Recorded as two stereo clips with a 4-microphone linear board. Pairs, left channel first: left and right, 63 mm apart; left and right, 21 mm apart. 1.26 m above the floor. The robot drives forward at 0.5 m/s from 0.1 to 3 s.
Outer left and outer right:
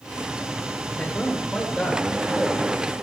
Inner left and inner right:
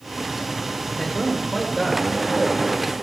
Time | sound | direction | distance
0.9 | a man speaking | 25° left (ahead or behind) | 2 m